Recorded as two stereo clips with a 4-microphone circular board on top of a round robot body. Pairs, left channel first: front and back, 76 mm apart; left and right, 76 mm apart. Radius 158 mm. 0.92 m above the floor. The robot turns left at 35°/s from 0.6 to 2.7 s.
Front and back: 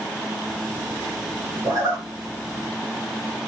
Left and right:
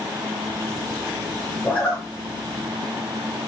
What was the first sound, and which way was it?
A zipper, 165° left.